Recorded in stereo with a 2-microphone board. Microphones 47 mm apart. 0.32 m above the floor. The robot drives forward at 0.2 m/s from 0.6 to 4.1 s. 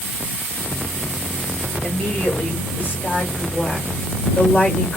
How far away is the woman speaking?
About 1.6 m.